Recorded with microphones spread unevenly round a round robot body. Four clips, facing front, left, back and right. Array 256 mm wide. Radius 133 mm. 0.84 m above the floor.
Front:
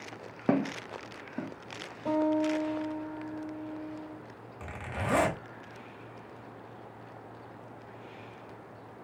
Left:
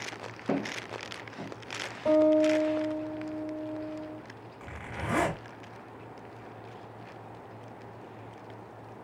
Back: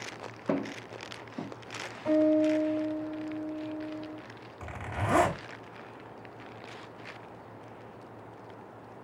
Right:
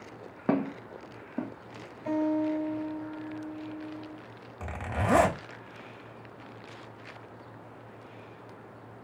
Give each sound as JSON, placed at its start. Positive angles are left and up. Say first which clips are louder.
{"t": 0.5, "sound": "footsteps", "louder": "right 3 dB, front 3 dB", "azimuth_deg": -25, "distance_m": 1.8}
{"t": 2.0, "sound": "a guitar", "louder": "left 6 dB, back 4 dB", "azimuth_deg": 60, "distance_m": 3.0}
{"t": 4.6, "sound": "a zipper", "louder": "right 7 dB, back 1 dB", "azimuth_deg": -95, "distance_m": 1.1}